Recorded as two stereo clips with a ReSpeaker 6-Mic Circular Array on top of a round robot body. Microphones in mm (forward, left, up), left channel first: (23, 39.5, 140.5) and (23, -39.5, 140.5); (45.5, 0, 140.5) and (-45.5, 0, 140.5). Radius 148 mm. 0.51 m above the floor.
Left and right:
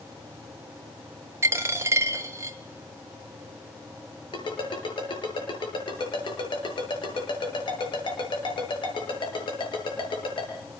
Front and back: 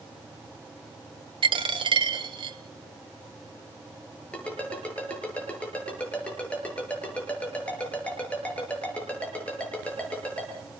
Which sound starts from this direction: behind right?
A dropped coin, at 1.4 s.